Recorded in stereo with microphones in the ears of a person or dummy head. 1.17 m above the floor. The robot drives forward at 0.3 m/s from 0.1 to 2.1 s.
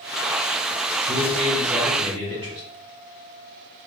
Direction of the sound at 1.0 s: 35° right (ahead or behind).